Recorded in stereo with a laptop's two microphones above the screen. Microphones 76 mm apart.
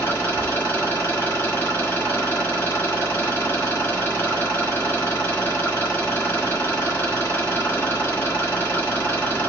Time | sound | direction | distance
0.0 | an engine running | 25° left (ahead or behind) | 1.5 m